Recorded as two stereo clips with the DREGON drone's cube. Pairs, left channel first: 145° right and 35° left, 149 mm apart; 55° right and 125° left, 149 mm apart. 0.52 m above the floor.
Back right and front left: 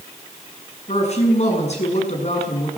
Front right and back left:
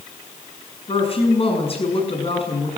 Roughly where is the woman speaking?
Right.